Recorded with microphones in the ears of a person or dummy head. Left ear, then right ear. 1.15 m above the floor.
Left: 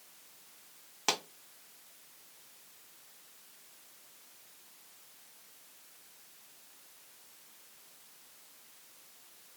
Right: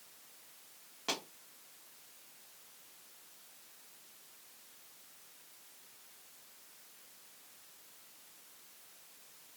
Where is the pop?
40° left (ahead or behind), 0.5 m.